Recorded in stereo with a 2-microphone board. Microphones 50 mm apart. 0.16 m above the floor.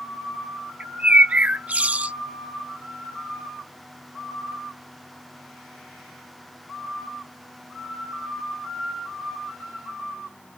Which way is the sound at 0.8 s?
30° right (ahead or behind).